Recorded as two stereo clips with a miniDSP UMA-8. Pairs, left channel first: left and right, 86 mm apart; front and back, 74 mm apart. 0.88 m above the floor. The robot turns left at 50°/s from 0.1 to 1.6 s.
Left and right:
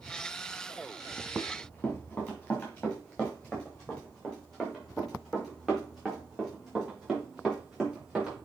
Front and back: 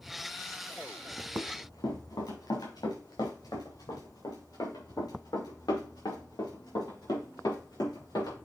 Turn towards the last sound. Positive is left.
turn(degrees=-10)